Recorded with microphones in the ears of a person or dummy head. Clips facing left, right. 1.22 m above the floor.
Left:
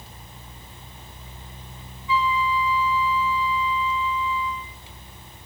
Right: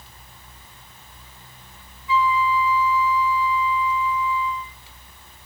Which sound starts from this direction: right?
A flute, at 2.1 s.